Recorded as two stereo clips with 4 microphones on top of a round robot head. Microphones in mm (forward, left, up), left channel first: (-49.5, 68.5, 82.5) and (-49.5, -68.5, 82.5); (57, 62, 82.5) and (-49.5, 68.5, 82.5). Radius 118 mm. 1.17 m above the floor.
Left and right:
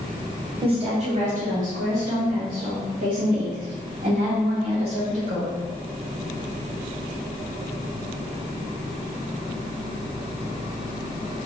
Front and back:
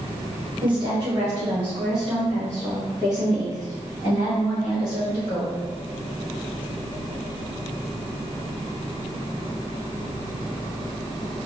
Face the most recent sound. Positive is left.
turn(degrees=-45)